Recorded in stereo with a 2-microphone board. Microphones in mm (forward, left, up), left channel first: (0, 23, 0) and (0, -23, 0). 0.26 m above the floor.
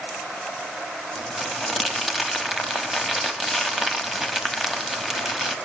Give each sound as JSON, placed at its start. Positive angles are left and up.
{"t": 1.1, "sound": "crumpling", "side_deg": -5, "distance_m": 1.2}